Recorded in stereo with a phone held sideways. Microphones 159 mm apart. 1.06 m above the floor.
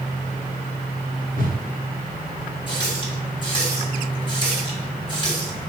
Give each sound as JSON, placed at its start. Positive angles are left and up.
{"t": 1.4, "sound": "a whoosh", "side_deg": 65, "distance_m": 1.1}
{"t": 2.7, "sound": "a running tap", "side_deg": 30, "distance_m": 1.8}